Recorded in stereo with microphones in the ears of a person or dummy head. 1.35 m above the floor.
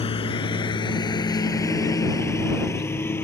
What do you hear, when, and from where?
0.0 s a lawn mower: 30° left (ahead or behind); by 3.2 s 15° left (ahead or behind)